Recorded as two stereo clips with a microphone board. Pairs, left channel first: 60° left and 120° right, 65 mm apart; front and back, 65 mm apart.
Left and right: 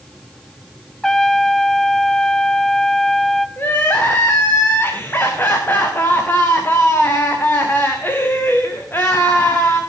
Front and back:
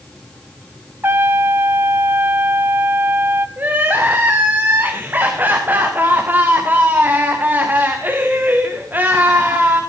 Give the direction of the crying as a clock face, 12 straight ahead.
8 o'clock.